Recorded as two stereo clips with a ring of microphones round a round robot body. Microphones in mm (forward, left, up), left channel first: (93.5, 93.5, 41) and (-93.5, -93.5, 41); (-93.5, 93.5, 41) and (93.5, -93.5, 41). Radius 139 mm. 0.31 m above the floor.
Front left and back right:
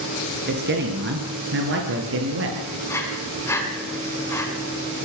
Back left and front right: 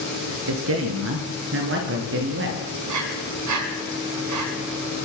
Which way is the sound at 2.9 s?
35° right.